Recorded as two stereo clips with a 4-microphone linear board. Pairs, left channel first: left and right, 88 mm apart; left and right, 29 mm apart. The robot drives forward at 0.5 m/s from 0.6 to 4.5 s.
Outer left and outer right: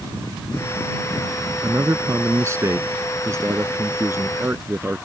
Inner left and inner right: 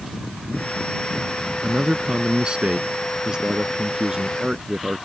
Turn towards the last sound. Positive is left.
turn(degrees=-25)  # may be behind; listen again after turning